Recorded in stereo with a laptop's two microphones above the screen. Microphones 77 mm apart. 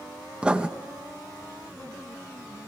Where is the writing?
15° right (ahead or behind), 0.9 m.